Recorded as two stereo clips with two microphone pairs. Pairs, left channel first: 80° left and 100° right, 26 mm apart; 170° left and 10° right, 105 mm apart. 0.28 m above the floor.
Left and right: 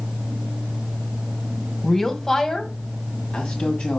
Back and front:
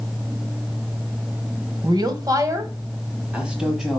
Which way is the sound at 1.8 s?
10° left.